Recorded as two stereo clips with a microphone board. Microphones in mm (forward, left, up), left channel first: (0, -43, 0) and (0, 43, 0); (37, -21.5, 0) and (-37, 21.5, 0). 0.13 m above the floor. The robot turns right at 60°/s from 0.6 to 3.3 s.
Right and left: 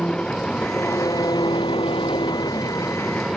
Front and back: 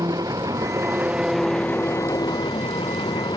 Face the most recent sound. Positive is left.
turn(degrees=-5)